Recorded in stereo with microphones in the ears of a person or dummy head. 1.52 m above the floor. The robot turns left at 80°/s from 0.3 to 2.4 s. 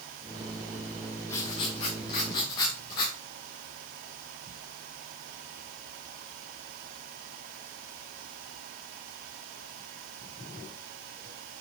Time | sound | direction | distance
1.3 | writing | 10° left (ahead or behind) | 0.8 m